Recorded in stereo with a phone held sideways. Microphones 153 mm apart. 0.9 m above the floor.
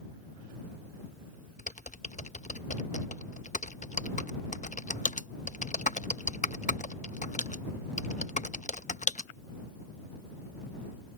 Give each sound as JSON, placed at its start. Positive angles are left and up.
{"t": 1.6, "sound": "typing on a keyboard", "side_deg": 60}